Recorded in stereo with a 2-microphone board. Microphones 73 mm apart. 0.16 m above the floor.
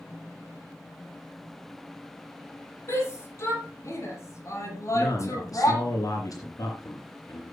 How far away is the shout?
About 6.5 m.